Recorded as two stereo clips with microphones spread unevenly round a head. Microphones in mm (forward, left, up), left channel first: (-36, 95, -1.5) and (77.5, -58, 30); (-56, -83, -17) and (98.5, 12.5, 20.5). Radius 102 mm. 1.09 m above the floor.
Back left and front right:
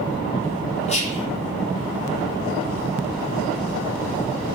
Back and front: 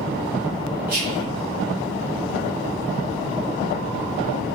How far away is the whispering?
About 1.1 m.